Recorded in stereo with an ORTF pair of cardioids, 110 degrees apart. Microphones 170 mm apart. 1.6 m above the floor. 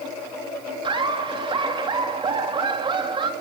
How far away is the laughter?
About 3.5 m.